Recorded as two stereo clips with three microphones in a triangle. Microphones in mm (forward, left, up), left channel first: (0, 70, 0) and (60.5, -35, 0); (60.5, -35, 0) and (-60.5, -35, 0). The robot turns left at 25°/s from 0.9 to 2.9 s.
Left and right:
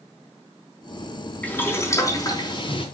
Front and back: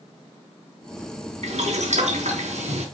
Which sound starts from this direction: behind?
Boiling, at 1.4 s.